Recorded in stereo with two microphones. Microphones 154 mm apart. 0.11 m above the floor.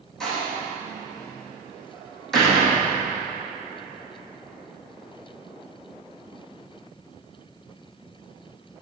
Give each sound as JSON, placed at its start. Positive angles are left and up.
{"t": 0.2, "sound": "a door slam", "side_deg": 5, "distance_m": 3.0}